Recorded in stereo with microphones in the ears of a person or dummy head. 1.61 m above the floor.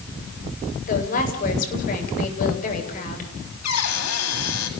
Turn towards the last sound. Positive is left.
turn(degrees=85)